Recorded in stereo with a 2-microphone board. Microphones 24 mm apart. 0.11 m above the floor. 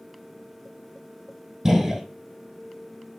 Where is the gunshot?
20° right (ahead or behind), 4 m.